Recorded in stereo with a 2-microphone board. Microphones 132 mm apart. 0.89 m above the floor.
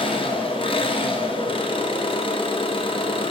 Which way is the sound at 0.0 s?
40° left (ahead or behind).